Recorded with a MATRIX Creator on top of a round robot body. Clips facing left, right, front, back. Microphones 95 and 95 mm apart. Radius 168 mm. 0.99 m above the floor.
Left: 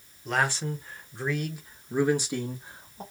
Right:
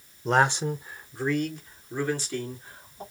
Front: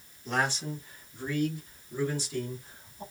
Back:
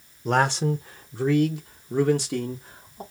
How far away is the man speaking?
About 0.7 m.